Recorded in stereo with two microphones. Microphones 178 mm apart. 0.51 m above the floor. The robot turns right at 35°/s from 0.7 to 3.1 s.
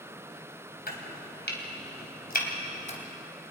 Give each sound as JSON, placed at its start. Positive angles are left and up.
{"t": 0.9, "sound": "chopping", "side_deg": 60, "distance_m": 3.0}